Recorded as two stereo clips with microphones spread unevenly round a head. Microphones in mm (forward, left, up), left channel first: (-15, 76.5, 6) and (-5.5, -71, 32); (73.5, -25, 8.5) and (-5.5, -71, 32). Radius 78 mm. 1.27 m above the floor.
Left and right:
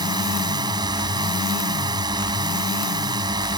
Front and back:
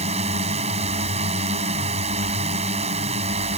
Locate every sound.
0.0 s a drone: 150° right